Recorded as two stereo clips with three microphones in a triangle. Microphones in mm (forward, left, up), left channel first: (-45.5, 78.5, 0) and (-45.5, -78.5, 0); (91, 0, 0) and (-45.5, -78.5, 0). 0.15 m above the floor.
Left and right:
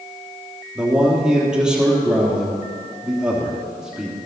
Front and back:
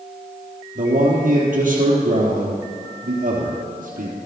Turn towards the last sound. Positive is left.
turn(degrees=-175)